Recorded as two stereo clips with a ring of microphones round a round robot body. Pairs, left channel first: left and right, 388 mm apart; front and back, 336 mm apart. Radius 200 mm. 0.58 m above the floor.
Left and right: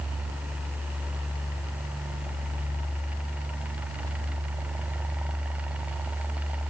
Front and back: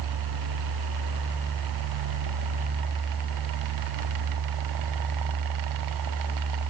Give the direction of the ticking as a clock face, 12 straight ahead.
I don't hear ticking.